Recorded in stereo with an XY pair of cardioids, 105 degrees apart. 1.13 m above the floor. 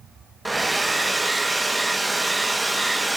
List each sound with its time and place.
0.5 s a hair dryer: 15° right, 0.8 m